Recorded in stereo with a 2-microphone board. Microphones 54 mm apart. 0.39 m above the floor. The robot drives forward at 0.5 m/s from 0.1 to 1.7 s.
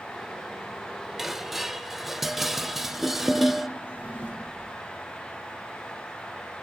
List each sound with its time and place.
1.2 s dishes clattering: 10° right (ahead or behind), 0.7 m; by 3.7 s 5° right (ahead or behind), 0.8 m
3.8 s a drawer: 35° right (ahead or behind), 8 m